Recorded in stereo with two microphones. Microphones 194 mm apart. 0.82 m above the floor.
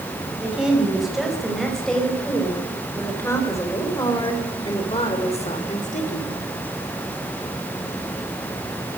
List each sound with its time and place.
0.4 s a woman speaking: 5° right (ahead or behind), 5 m; by 6.3 s 40° left (ahead or behind), 3 m